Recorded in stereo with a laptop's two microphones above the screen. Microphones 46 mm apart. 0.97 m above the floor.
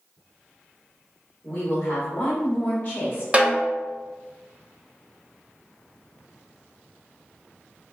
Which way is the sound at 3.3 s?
30° right (ahead or behind).